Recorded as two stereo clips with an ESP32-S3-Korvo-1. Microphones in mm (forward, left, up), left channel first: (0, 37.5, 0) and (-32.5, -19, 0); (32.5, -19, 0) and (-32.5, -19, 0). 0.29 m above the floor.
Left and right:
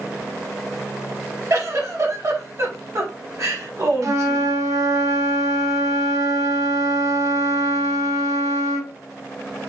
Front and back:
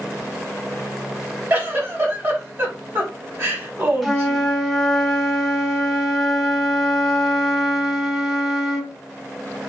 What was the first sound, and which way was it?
A giggle, 135° right.